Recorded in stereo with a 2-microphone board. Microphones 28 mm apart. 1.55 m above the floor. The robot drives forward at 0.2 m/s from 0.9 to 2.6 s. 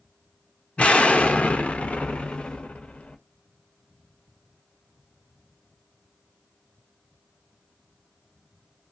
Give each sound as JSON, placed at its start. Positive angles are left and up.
{"t": 0.8, "sound": "an explosion", "side_deg": 50, "distance_m": 0.5}